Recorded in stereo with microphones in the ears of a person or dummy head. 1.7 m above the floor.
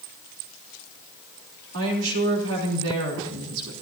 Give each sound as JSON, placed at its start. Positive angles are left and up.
{"t": 1.7, "sound": "a woman speaking", "side_deg": -70, "distance_m": 3.5}